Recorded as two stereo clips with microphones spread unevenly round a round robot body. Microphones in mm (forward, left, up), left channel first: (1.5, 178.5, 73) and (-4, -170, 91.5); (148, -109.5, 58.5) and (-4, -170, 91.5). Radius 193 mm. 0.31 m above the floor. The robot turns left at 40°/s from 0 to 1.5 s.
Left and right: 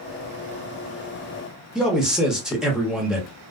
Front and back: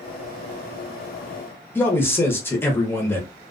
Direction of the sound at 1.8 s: Straight ahead.